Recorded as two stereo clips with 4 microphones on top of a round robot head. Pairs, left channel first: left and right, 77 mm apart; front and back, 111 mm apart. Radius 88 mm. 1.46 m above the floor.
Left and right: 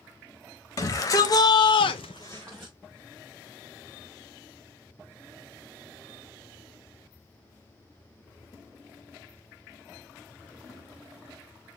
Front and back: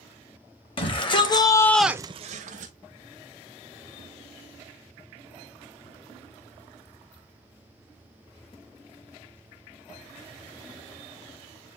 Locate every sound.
0.8 s a shout: 40° left, 1.7 m; by 2.7 s 175° right, 1.1 m